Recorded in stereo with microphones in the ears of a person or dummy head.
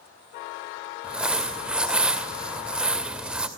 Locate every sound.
1.0 s crumpling: 5° right (ahead or behind), 2 m